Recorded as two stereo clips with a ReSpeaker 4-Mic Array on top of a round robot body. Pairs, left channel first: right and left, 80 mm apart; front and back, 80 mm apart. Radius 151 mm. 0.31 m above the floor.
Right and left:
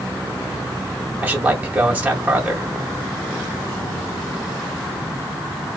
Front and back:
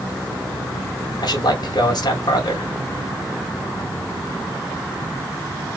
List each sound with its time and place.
1.2 s a man speaking: 20° left, 2.0 m